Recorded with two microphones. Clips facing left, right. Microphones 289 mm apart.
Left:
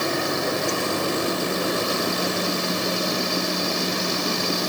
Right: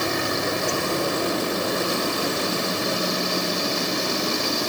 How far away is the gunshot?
No gunshot in this recording.